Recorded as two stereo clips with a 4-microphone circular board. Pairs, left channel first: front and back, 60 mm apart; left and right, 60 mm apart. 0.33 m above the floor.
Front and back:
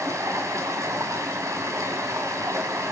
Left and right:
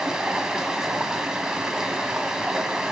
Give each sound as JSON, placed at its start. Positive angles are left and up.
{"t": 0.0, "sound": "running water", "azimuth_deg": -170, "distance_m": 2.0}